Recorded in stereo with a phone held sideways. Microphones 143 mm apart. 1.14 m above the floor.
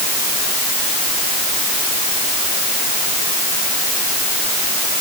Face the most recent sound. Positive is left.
No sound to turn to.